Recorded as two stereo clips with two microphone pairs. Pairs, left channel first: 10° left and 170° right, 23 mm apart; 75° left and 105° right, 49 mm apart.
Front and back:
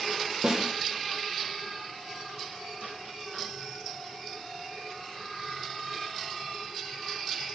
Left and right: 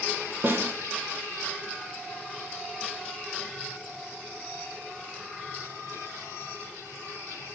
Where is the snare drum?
115° right, 0.8 m.